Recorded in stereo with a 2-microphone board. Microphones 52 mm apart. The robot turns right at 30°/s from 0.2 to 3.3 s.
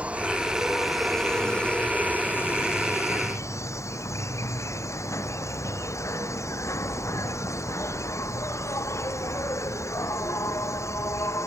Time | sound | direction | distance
0.0 | an insect | 25° right | ?